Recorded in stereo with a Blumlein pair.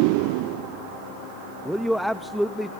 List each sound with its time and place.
1.6 s a man speaking: straight ahead, 0.6 m